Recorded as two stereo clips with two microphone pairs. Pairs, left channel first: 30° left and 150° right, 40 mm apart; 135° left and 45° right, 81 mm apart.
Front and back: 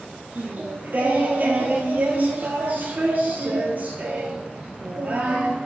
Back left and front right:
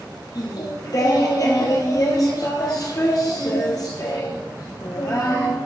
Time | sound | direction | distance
0.3 | singing | 175° left | 1.5 m